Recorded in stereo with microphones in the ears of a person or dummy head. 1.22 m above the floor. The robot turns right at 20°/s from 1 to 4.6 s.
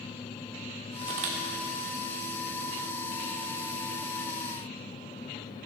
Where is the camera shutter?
35° right (ahead or behind), 1.3 m; by 1.4 s 40° right (ahead or behind), 1.3 m.